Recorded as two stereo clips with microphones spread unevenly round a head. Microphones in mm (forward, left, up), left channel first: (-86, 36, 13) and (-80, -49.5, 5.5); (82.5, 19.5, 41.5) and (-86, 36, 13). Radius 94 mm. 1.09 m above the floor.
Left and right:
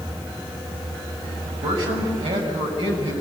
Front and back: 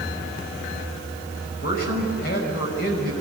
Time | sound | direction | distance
1.6 | a man speaking | 50° right | 6 m